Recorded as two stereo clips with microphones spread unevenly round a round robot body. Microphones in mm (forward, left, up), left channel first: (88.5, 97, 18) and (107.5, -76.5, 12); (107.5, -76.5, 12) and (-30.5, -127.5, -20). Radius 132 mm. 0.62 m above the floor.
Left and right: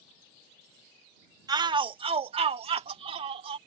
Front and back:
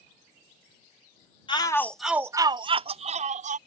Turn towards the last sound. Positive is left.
turn(degrees=-150)